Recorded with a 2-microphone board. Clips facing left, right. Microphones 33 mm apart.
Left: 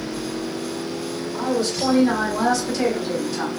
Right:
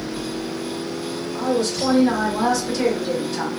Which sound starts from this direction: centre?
A woman speaking, at 1.3 s.